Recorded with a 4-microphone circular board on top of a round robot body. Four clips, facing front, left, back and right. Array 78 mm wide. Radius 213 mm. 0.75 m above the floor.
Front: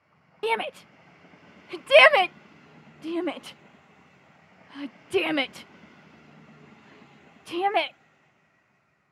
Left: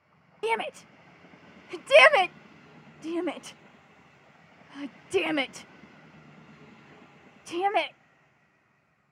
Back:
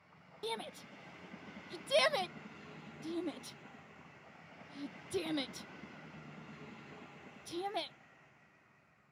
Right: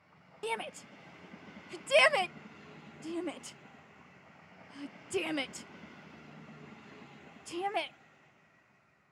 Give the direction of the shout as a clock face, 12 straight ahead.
11 o'clock.